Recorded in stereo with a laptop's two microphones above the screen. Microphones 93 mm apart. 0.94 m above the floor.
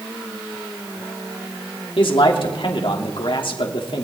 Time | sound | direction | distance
2.0 | a man speaking | 70° left (ahead or behind) | 2.5 m